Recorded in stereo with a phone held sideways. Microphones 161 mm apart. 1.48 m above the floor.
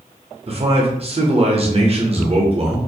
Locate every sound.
0.5 s a man speaking: 40° right (ahead or behind), 0.6 m